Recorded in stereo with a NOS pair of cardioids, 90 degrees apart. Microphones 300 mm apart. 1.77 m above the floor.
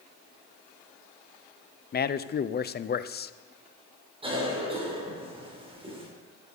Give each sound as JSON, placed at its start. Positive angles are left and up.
{"t": 1.9, "sound": "a man speaking", "azimuth_deg": 35, "distance_m": 0.7}
{"t": 4.2, "sound": "a cough", "azimuth_deg": -20, "distance_m": 7.0}